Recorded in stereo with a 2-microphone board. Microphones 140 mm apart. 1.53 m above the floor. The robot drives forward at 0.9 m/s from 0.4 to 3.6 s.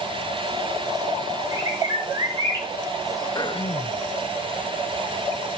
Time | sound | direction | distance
1.5 | a bird | 25° right (ahead or behind) | 4 m
3.4 | throat clearing | 30° left (ahead or behind) | 0.7 m